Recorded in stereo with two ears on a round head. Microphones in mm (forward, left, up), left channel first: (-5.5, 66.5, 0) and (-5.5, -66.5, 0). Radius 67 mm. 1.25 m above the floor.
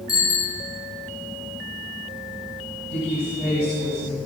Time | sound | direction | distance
0.1 | a bicycle bell | 20° left (ahead or behind) | 4 m
2.9 | a woman speaking | 40° left (ahead or behind) | 8.5 m